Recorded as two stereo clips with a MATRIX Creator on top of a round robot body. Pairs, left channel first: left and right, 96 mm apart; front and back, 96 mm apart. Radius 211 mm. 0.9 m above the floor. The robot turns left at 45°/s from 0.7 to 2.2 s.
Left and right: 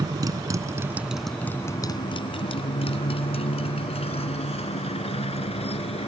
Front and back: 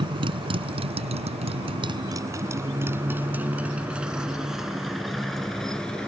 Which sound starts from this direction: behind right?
A motorcycle, at 0.0 s.